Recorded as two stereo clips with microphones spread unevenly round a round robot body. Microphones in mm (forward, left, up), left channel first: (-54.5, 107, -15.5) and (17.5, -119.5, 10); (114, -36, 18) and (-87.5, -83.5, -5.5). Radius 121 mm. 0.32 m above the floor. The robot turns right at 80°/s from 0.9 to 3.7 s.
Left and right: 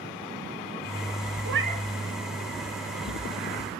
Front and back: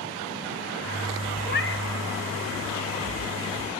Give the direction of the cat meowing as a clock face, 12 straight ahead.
1 o'clock.